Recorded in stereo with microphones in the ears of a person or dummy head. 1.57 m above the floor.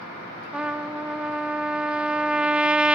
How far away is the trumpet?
About 0.6 m.